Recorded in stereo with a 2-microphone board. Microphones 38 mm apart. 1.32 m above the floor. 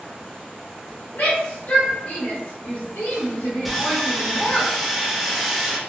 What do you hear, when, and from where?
1.1 s a shout: 65° left (ahead or behind), 0.8 m
3.6 s sawing: centre (ahead or behind), 0.6 m